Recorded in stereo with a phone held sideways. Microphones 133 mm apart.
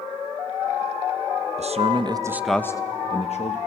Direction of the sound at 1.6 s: 55° right (ahead or behind).